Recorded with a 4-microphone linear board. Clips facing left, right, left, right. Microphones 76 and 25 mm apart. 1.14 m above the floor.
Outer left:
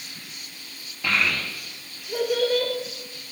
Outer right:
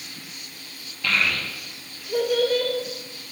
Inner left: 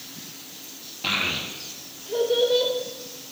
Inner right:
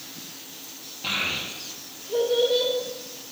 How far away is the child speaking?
About 0.8 m.